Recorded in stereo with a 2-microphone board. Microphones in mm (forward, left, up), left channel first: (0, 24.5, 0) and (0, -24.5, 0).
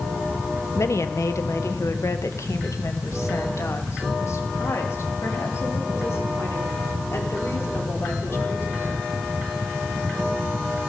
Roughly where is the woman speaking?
Left.